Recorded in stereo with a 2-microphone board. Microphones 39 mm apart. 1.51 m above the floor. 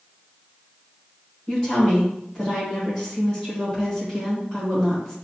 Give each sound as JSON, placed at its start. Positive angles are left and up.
{"t": 1.5, "sound": "a woman speaking", "side_deg": 0, "distance_m": 1.3}